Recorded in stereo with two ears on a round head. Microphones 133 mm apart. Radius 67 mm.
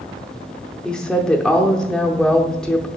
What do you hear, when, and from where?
0.8 s a woman speaking: 5° left (ahead or behind), 0.8 m